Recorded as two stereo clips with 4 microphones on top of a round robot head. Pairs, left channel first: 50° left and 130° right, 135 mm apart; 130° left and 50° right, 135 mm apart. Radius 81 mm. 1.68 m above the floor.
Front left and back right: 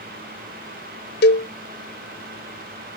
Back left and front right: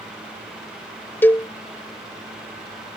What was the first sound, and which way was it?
A cowbell, 50° left.